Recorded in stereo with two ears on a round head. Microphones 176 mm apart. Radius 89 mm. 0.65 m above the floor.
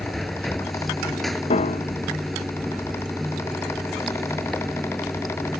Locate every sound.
0.0 s running water: centre (ahead or behind)
1.5 s a piano: 30° left (ahead or behind)